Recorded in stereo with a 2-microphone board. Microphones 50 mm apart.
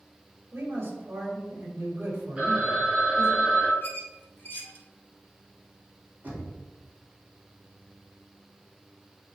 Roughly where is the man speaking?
Right.